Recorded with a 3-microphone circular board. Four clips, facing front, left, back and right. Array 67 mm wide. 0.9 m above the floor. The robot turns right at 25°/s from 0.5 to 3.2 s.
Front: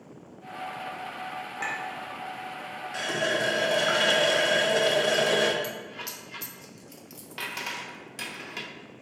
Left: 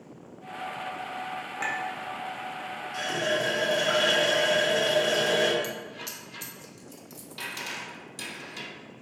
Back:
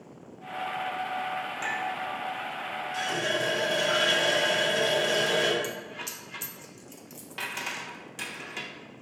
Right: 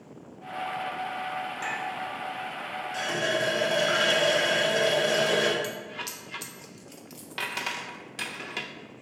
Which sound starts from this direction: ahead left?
A clink, at 1.6 s.